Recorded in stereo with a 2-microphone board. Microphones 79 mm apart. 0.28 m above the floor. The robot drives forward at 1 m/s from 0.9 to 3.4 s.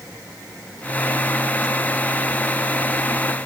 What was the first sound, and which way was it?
Only background noise.